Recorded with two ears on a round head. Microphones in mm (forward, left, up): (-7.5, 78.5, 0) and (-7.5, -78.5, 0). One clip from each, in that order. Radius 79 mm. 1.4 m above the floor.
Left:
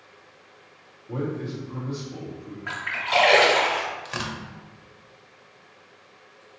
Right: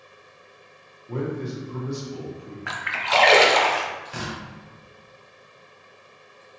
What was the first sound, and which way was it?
A man speaking, 60° right (ahead or behind).